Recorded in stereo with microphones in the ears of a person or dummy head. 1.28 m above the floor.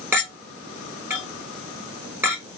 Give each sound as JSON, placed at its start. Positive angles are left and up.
{"t": 0.1, "sound": "a clink", "side_deg": -10, "distance_m": 3.0}